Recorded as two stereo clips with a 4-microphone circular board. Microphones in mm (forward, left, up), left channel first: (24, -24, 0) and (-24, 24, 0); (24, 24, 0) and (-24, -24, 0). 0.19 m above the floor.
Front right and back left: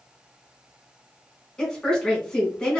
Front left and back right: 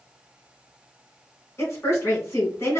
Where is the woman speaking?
30° left, 1.6 m.